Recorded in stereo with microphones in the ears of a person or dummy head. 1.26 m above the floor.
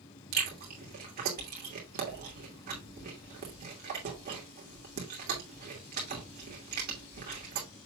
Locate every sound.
0.3 s chewing: 45° right (ahead or behind), 2.5 m